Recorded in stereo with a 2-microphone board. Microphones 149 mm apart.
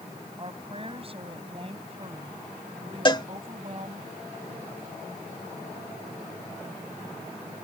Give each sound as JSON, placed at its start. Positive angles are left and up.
{"t": 0.4, "sound": "a woman speaking", "side_deg": -40}
{"t": 3.0, "sound": "a cowbell", "side_deg": 30}